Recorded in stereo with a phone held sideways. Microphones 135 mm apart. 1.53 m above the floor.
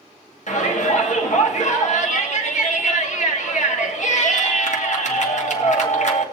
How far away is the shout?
About 2 m.